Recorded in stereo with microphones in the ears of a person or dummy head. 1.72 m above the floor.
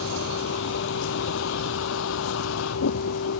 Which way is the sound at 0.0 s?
80° left.